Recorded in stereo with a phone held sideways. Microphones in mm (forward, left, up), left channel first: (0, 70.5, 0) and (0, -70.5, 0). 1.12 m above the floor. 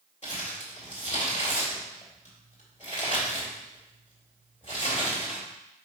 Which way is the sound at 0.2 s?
55° left (ahead or behind).